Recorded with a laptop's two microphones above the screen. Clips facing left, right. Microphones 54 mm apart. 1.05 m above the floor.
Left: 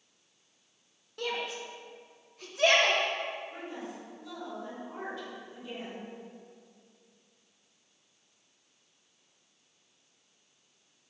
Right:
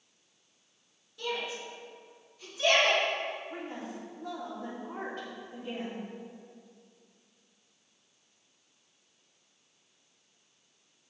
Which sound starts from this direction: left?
A shout, at 1.2 s.